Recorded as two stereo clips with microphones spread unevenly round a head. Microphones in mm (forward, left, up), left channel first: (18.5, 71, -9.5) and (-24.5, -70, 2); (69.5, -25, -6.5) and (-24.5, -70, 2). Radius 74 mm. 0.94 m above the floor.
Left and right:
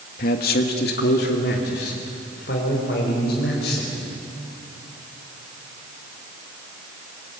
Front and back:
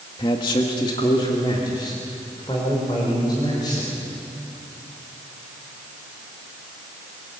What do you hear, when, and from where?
0.2 s a man speaking: 75° left, 1.5 m; by 3.9 s 90° left, 5.5 m